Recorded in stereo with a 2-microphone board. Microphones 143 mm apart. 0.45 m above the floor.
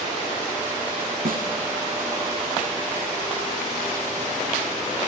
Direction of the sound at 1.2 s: 85° right.